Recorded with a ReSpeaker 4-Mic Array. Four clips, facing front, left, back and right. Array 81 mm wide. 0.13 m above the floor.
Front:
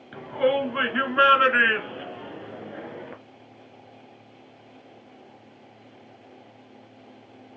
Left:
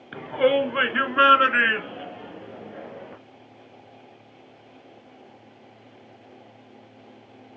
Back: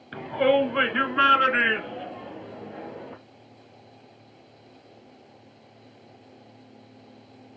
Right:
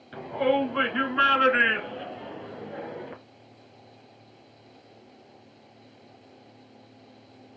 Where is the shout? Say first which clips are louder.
Left 4 dB, back 2 dB; 115° left, 1.5 m; by 3.1 s 20° right, 1.6 m.